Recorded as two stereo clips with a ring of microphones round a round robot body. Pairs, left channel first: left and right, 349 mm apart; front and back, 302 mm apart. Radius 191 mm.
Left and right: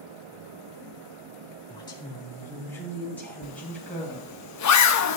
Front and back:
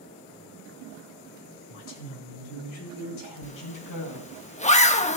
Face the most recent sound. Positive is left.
turn(degrees=65)